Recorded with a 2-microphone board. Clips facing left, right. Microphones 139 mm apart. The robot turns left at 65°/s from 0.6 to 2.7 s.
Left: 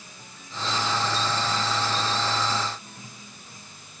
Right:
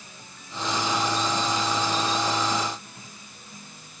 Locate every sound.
Only background noise.